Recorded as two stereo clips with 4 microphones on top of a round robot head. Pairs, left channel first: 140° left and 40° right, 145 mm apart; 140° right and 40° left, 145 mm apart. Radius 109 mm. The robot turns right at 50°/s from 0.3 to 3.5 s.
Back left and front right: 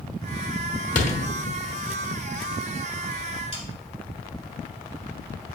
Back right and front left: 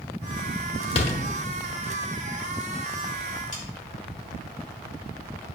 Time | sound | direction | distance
0.9 | a door slam | 175° left | 1.2 m
3.5 | sawing | 170° right | 3.5 m